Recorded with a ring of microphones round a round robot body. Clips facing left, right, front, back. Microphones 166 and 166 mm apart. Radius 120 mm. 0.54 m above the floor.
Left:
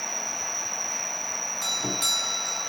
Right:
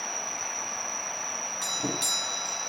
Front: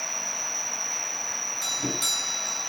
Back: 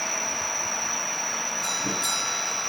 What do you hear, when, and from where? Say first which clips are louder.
0.0 s an insect: left 1 dB, back 6 dB; 120° left, 2 m
1.6 s a doorbell: right 1 dB, front 2 dB; 25° right, 7 m